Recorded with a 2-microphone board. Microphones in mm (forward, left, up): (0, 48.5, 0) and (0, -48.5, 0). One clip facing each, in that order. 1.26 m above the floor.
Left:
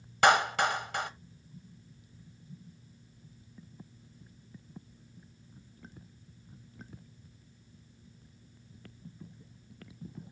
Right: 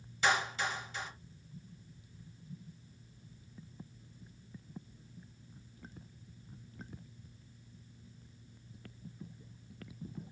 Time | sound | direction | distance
0.2 | a clap | 75° left (ahead or behind) | 0.7 m